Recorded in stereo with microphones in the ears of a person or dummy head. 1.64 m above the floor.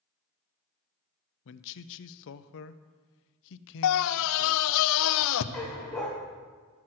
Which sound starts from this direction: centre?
A dog barking, at 5.5 s.